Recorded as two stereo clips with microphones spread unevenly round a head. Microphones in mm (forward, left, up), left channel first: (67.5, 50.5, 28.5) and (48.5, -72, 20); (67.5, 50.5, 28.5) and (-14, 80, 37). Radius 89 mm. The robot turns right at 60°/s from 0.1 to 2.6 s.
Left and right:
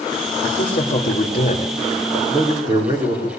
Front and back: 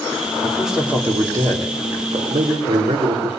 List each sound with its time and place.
0.4 s a man speaking: 60° left, 4 m; by 3.3 s 170° right, 4 m